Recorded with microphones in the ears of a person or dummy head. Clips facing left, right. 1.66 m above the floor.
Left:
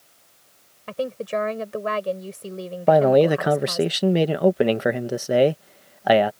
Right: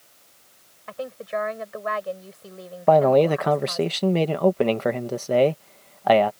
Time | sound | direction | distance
0.9 | a woman speaking | 40° left (ahead or behind) | ?
2.9 | a man speaking | 10° left (ahead or behind) | ?